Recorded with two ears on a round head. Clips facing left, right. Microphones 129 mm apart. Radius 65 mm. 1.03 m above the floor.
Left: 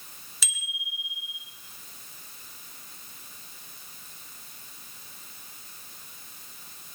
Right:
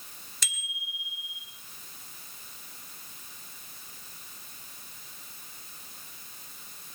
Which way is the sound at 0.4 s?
5° left (ahead or behind).